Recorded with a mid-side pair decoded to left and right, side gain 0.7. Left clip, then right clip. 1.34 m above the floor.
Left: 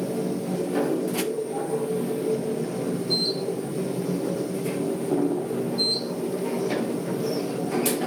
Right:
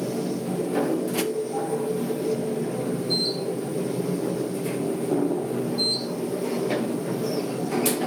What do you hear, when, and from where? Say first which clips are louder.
0.0 s a machine running: even; 5° right, 1.2 m